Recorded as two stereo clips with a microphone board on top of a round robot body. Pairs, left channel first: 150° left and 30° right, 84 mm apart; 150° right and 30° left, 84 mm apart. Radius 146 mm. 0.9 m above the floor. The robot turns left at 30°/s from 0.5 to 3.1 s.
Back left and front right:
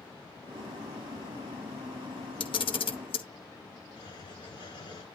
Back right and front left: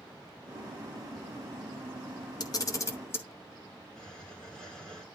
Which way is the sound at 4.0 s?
130° left.